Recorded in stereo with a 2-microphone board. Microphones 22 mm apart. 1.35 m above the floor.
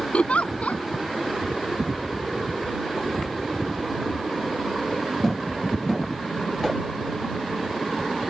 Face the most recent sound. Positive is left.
turn(degrees=75)  # may be behind; listen again after turning